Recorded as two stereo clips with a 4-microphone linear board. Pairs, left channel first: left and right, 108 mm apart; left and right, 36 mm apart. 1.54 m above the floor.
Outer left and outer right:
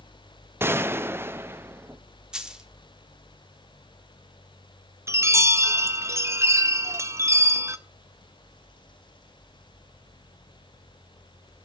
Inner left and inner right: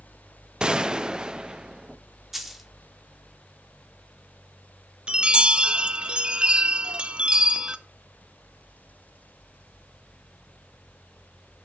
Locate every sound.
0.6 s a gunshot: 20° right (ahead or behind), 0.5 m
2.3 s a dropped coin: 5° right (ahead or behind), 1.1 m
5.1 s a chime: 25° right (ahead or behind), 0.7 m